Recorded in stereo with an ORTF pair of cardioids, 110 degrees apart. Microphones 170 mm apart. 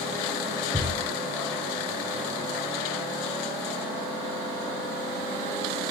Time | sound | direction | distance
0.7 | a thud | straight ahead | 1.5 m